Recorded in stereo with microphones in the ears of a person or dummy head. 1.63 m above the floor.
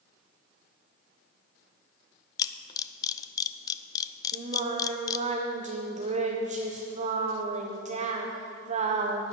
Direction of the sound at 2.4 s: 30° left (ahead or behind).